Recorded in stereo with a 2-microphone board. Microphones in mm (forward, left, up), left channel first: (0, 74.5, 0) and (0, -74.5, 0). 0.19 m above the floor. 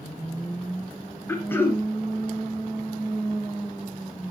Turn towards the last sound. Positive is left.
turn(degrees=15)  # may be behind; listen again after turning